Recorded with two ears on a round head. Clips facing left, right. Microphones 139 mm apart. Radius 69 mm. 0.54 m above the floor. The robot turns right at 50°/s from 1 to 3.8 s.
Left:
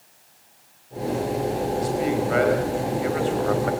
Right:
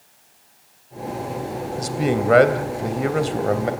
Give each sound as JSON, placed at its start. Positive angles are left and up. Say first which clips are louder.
{"t": 1.8, "sound": "a man speaking", "louder": "right 4 dB", "azimuth_deg": -125, "distance_m": 3.0}